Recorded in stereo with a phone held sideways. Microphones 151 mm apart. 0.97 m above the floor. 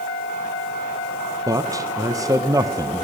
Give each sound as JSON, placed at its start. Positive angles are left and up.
{"t": 1.5, "sound": "a man speaking", "side_deg": -25, "distance_m": 0.6}